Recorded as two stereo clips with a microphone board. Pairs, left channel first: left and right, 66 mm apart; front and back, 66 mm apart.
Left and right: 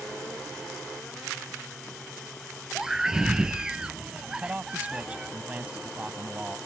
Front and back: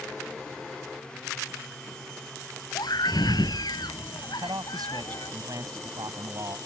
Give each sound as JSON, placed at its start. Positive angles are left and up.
{"t": 2.8, "sound": "a scream", "azimuth_deg": -10}
{"t": 4.3, "sound": "a man speaking", "azimuth_deg": -160}